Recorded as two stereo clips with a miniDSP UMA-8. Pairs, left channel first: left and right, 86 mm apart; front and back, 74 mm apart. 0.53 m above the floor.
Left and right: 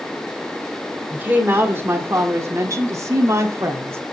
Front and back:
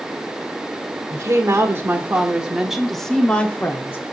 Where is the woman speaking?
150° right, 1.7 m; by 4.0 s 45° right, 1.5 m.